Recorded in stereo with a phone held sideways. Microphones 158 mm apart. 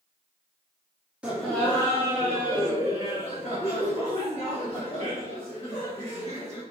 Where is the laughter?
5° right (ahead or behind), 0.6 m; by 6.6 s 45° left (ahead or behind), 3 m.